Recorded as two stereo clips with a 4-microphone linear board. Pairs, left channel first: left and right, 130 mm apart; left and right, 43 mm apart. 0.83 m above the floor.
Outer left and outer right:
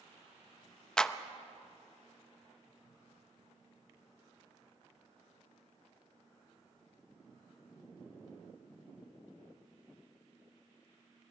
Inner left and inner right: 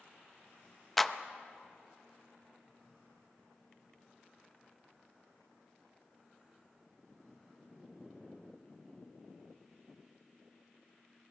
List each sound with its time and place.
1.0 s a clap: 5° left (ahead or behind), 0.7 m